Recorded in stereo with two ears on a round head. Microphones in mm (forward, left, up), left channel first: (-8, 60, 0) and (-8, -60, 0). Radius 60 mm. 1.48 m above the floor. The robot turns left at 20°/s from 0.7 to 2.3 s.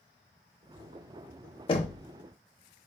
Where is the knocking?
40° left (ahead or behind), 0.6 m; by 2.0 s 45° left (ahead or behind), 0.6 m.